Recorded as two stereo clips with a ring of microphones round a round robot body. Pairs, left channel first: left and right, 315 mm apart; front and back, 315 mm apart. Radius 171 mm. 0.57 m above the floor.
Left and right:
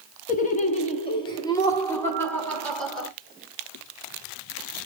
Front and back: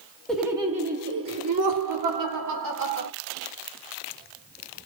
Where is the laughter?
85° left, 1.2 m; by 3.1 s straight behind, 3 m.